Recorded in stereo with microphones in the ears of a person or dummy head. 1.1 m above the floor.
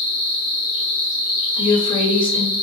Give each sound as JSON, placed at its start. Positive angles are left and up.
{"t": 0.0, "sound": "an insect", "side_deg": 40, "distance_m": 1.0}
{"t": 1.6, "sound": "a woman speaking", "side_deg": 20, "distance_m": 1.1}